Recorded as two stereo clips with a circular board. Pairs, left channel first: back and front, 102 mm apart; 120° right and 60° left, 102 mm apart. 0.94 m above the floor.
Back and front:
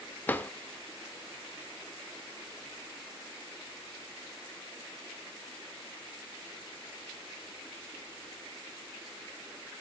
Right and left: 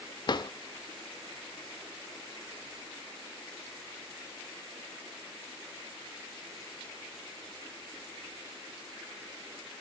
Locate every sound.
0.3 s a drawer: 115° right, 0.7 m